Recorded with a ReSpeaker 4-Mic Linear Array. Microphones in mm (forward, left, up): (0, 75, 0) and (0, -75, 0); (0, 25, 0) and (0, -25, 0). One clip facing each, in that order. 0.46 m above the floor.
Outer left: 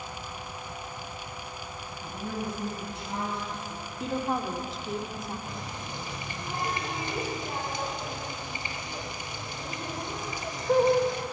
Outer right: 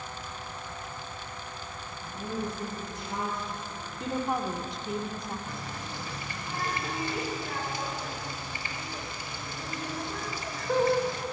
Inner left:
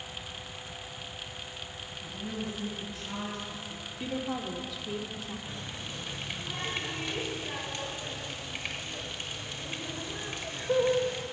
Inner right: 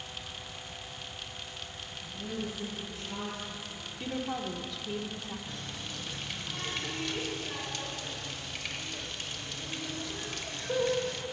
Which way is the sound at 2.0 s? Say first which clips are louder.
Even, even; 60° left (ahead or behind).